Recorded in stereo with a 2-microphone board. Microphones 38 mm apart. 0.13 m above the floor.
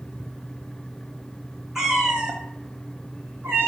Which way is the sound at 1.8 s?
10° right (ahead or behind).